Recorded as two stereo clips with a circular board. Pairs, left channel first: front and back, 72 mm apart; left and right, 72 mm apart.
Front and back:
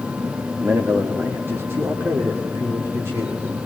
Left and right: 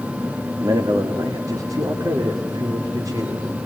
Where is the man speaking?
120° right, 1.6 m; by 3.7 s 125° right, 4 m.